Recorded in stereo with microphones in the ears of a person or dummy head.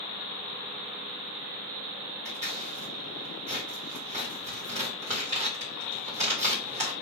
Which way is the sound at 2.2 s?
35° right (ahead or behind).